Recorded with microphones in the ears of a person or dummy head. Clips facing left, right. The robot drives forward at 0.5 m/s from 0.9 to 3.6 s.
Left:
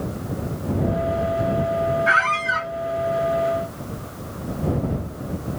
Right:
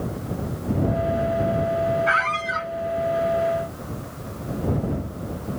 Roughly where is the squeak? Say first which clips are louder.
Left 1 dB; left.